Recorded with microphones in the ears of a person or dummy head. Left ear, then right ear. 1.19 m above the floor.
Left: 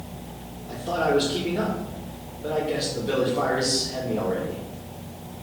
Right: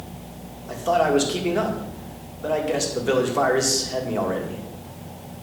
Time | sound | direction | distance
0.7 | a man speaking | 55° right (ahead or behind) | 1.3 m